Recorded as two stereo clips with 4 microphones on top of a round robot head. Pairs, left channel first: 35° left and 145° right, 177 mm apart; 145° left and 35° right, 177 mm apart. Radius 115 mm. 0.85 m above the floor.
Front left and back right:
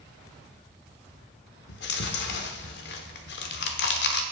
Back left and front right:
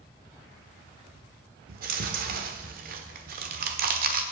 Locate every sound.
1.7 s chewing: 5° left, 1.0 m